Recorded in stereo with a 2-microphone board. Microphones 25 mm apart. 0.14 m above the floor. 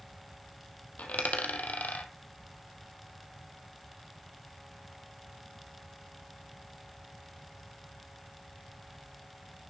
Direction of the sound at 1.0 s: 75° left (ahead or behind).